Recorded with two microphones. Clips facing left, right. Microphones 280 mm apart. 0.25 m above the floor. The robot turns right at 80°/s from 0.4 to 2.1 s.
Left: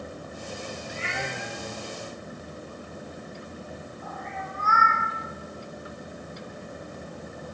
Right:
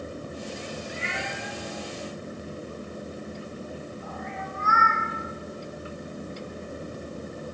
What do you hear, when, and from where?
0.9 s a cat meowing: 65° left (ahead or behind), 1.6 m; by 5.0 s 30° right (ahead or behind), 1.6 m